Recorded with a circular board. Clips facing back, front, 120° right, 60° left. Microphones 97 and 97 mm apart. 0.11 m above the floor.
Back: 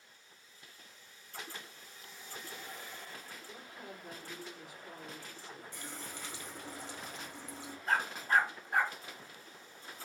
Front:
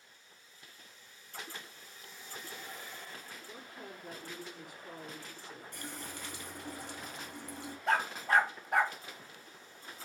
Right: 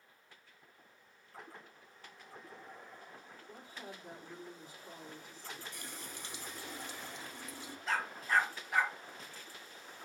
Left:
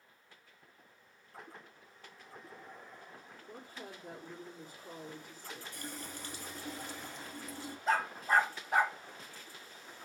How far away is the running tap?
About 1.8 m.